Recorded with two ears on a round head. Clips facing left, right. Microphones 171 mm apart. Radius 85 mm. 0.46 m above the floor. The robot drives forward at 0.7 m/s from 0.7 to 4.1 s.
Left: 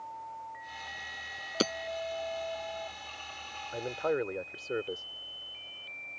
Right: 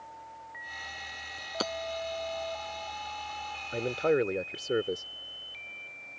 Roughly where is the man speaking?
Right.